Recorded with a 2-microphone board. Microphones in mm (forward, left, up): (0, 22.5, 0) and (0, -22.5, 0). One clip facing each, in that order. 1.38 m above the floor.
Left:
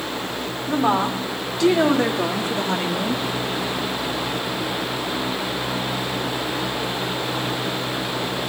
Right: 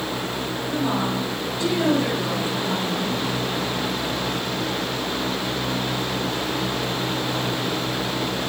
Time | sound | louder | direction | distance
0.7 | a woman speaking | left 5 dB | 80° left | 4 m